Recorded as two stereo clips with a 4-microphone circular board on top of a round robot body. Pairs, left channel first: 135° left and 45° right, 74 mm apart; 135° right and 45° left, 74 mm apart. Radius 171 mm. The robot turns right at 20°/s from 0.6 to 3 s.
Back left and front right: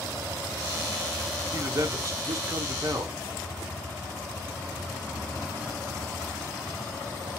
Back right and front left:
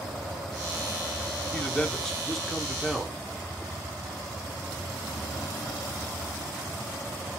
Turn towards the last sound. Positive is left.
turn(degrees=-35)